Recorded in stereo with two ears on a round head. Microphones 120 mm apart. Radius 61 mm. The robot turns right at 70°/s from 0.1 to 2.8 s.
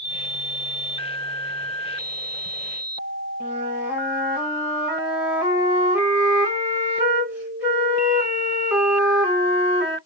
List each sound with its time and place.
3.4 s a flute: 10° right (ahead or behind), 1.3 m